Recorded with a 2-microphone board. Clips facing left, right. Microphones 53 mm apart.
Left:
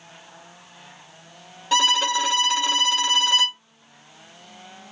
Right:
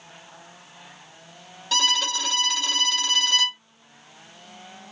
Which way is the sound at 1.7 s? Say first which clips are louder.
Left 4 dB; 20° left (ahead or behind).